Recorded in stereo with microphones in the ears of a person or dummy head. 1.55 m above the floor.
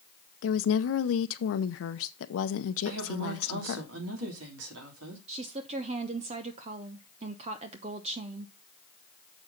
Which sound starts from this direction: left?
A woman speaking, at 0.4 s.